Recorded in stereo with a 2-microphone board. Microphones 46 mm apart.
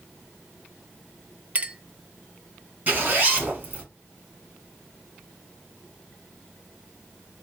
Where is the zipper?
30° right (ahead or behind), 2 m.